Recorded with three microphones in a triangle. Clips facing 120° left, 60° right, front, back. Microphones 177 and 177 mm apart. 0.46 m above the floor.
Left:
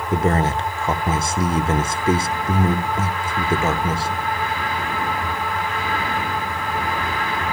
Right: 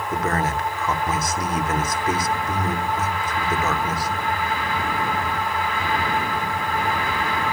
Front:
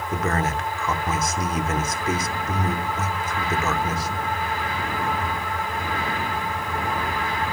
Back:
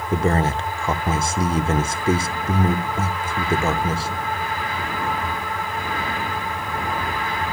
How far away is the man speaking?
About 0.8 m.